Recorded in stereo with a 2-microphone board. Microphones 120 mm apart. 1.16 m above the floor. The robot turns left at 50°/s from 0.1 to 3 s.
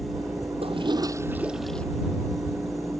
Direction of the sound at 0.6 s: 130° right.